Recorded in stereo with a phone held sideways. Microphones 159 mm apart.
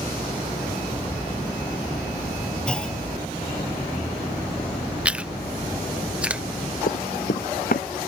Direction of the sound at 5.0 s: 10° right (ahead or behind).